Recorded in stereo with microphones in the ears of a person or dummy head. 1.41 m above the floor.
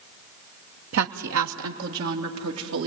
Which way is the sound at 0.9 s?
75° right (ahead or behind).